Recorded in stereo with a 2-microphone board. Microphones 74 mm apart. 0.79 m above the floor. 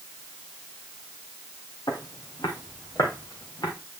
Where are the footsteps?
70° left (ahead or behind), 2 m; by 3.7 s 60° left (ahead or behind), 3 m.